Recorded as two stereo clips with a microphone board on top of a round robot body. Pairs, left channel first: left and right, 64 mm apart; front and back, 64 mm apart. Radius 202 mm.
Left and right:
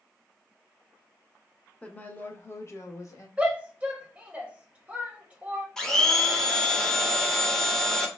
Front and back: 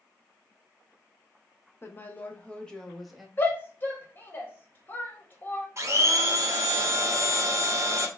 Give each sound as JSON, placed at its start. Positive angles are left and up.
{"t": 1.8, "sound": "a woman speaking", "azimuth_deg": 30, "distance_m": 1.0}
{"t": 3.4, "sound": "a shout", "azimuth_deg": -30, "distance_m": 1.2}
{"t": 5.8, "sound": "a blender", "azimuth_deg": 170, "distance_m": 1.0}